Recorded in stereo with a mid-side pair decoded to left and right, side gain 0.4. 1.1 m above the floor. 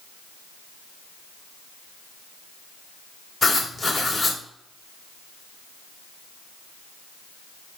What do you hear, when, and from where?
3.4 s writing: 30° left, 2.5 m